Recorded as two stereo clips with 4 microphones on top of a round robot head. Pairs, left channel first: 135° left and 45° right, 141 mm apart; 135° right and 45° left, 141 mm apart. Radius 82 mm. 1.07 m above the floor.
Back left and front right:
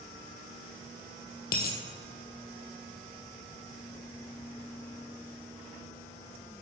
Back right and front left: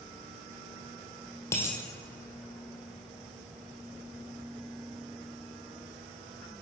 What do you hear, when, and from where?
1.5 s a dropped coin: 155° left, 1.8 m